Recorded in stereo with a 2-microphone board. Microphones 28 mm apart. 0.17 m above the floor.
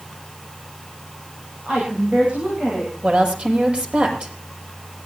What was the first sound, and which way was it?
A woman speaking, 45° right (ahead or behind).